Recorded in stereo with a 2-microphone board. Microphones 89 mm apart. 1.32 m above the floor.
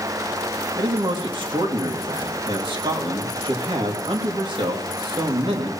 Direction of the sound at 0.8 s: 75° right (ahead or behind).